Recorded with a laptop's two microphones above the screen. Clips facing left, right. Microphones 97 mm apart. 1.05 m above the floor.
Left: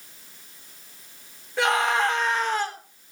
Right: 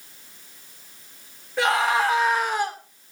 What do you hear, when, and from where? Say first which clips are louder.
1.6 s a scream: right 1 dB; centre (ahead or behind), 3 m; by 2.8 s 15° right (ahead or behind), 3 m